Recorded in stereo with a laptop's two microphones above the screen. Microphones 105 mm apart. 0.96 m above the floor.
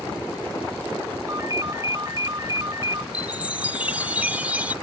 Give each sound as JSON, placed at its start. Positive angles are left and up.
{"t": 1.3, "sound": "a ringtone", "side_deg": -35}
{"t": 3.1, "sound": "a chime", "side_deg": -15}